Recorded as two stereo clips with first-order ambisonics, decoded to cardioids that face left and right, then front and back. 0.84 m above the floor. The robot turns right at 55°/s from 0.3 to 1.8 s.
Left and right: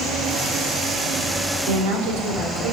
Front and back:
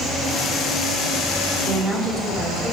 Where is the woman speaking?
95° right, 2.5 m; by 2.7 s 90° right, 2.5 m.